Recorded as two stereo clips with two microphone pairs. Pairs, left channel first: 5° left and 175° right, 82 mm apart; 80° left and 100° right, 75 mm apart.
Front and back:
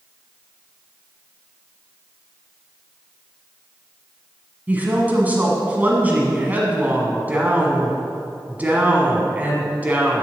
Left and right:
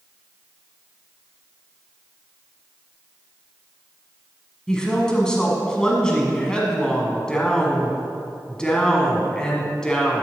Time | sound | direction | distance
4.7 | a woman speaking | 145° left | 1.1 m